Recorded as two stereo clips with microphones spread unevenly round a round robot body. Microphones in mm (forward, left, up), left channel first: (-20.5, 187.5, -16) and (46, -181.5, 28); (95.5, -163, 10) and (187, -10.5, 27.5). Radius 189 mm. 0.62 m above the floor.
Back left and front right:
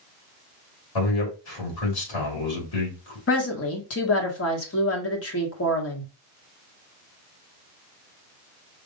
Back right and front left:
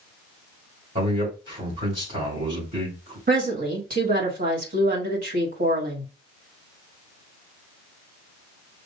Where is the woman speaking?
70° left, 1.3 m.